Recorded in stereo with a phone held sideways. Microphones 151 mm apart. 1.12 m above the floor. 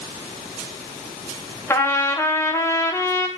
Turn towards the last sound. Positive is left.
turn(degrees=15)  # may be behind; listen again after turning